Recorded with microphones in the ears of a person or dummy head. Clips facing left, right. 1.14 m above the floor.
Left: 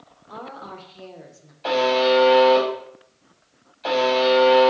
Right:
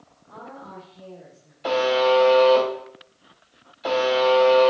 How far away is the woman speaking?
About 0.9 m.